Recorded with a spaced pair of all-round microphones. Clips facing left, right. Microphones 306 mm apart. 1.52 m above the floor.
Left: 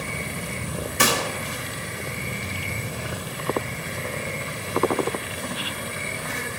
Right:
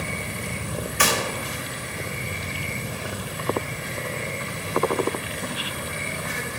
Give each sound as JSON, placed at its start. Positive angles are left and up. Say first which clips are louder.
{"t": 1.0, "sound": "a gunshot", "louder": "left 2 dB", "side_deg": 50, "distance_m": 1.9}